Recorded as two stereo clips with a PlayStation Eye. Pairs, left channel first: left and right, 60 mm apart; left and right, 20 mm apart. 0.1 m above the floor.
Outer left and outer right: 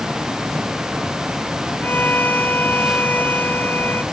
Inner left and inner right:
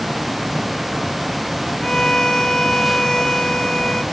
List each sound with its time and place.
1.8 s a violin: 30° left (ahead or behind)